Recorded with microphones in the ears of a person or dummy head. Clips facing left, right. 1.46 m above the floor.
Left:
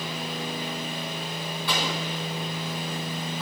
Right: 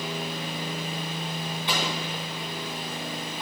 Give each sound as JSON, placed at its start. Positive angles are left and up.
{"t": 1.7, "sound": "an explosion", "side_deg": -20, "distance_m": 4.0}